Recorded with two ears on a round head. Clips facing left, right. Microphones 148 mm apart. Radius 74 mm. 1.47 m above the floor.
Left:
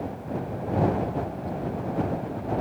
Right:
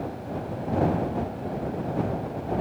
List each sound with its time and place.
Only background noise.